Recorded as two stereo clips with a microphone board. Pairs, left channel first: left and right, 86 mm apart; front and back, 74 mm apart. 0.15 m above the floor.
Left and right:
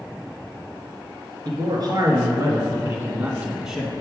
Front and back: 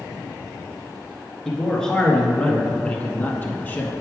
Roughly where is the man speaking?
Right.